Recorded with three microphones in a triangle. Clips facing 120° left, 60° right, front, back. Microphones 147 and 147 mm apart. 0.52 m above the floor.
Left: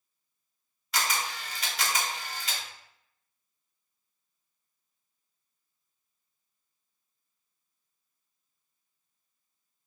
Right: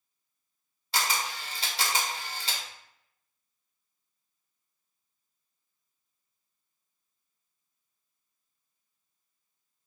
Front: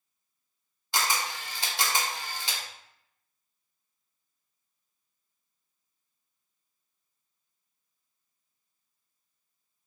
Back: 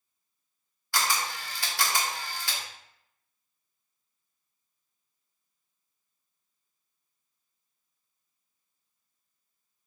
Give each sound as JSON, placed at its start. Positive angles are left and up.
{"t": 0.9, "sound": "a camera shutter", "azimuth_deg": -45, "distance_m": 0.8}